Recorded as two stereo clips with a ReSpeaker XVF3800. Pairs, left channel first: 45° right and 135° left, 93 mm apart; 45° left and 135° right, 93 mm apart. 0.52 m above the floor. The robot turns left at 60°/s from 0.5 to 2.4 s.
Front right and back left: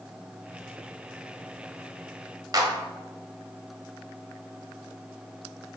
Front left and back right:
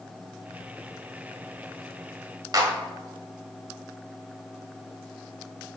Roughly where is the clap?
Behind.